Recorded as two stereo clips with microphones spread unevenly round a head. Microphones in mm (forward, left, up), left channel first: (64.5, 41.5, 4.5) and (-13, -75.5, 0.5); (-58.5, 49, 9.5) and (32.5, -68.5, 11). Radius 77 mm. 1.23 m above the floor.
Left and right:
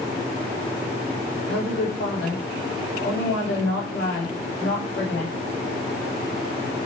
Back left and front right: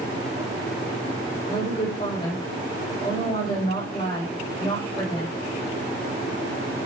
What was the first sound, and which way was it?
A woman speaking, 70° left.